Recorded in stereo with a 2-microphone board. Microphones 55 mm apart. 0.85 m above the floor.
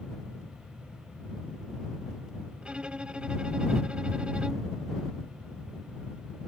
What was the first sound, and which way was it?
A violin, 20° right (ahead or behind).